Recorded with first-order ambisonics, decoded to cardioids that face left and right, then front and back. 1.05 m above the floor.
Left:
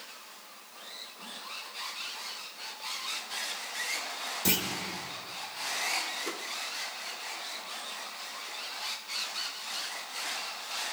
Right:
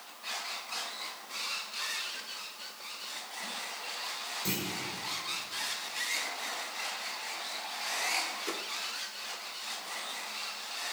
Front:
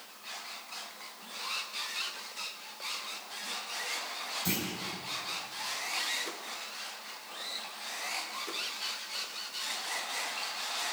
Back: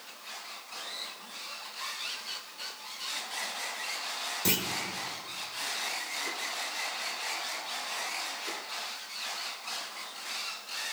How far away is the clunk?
About 1.2 m.